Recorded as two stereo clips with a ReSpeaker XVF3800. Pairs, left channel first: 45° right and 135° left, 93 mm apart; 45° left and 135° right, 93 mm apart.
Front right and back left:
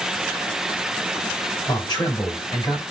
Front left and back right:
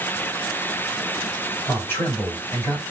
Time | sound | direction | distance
1.7 | a man speaking | 15° right | 2 m